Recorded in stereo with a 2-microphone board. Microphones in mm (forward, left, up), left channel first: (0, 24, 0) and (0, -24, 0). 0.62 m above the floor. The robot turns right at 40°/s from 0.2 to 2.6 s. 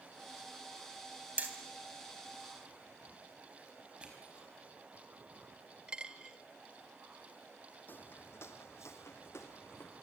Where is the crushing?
20° right (ahead or behind), 5 m.